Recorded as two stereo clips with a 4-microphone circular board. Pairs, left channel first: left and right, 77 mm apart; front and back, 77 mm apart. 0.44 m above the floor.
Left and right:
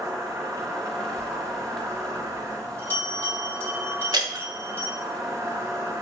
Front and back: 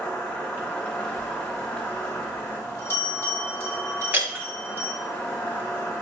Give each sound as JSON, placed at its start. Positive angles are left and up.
{"t": 0.0, "sound": "an insect", "azimuth_deg": -55, "distance_m": 1.1}
{"t": 1.2, "sound": "a bell", "azimuth_deg": 40, "distance_m": 1.7}
{"t": 4.1, "sound": "breaking glass", "azimuth_deg": -115, "distance_m": 0.7}